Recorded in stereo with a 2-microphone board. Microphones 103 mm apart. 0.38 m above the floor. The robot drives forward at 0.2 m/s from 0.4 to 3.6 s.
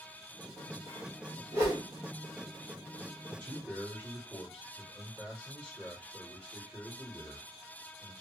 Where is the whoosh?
30° right (ahead or behind), 2.5 m.